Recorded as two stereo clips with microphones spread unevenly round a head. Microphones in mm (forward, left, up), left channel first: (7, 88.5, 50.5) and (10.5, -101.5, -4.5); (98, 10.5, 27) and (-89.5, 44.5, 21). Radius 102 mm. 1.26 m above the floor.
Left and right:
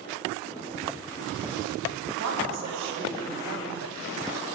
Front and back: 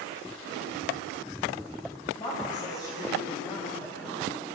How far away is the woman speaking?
About 9 m.